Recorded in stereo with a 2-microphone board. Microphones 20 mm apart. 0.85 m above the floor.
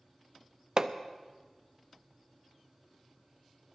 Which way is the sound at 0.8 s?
35° right (ahead or behind).